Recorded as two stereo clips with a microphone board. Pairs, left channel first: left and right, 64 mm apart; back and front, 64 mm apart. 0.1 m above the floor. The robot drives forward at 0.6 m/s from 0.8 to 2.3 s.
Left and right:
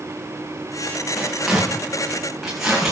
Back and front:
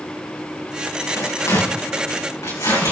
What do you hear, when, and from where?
1.2 s tearing paper: straight behind, 4.5 m